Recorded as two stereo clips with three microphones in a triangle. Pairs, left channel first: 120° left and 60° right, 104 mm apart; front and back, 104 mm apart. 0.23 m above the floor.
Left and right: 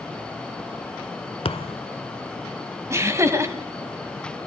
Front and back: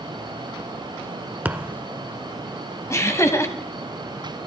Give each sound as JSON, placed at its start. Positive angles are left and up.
{"t": 1.4, "sound": "a thud", "azimuth_deg": 105, "distance_m": 0.9}
{"t": 2.9, "sound": "laughter", "azimuth_deg": -30, "distance_m": 1.5}